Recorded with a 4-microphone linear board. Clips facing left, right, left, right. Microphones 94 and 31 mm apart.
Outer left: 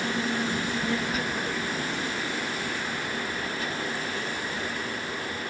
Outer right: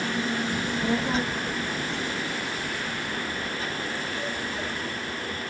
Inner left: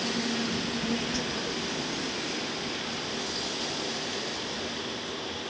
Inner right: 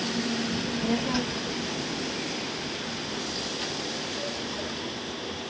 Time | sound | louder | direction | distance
0.5 | a child speaking | outer right 2 dB, inner right 2 dB | 20° right (ahead or behind) | 0.5 m